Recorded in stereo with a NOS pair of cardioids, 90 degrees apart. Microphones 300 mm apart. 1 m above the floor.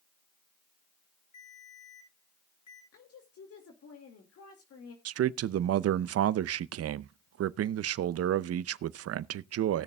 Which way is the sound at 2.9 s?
55° left.